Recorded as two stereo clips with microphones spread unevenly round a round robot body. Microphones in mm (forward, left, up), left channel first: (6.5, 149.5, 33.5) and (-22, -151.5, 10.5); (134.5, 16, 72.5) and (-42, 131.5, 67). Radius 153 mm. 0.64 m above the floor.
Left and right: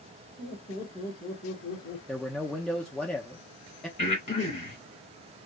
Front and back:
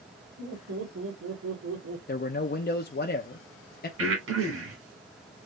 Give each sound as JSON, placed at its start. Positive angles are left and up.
{"t": 0.4, "sound": "laughter", "azimuth_deg": 170, "distance_m": 3.5}
{"t": 2.1, "sound": "a man speaking", "azimuth_deg": -10, "distance_m": 0.7}
{"t": 4.0, "sound": "breathing", "azimuth_deg": 155, "distance_m": 4.0}